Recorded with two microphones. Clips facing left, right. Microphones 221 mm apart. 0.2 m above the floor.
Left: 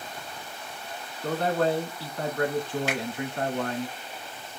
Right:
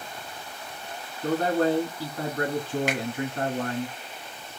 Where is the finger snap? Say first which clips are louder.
Right 1 dB; 15° right (ahead or behind), 1.6 m.